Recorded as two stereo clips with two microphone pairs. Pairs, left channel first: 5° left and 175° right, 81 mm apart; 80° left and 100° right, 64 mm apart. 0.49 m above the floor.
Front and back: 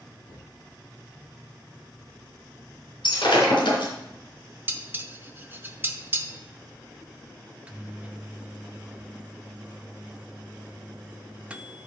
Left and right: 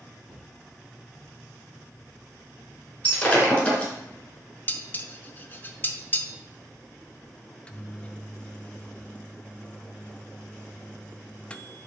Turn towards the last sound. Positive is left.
turn(degrees=125)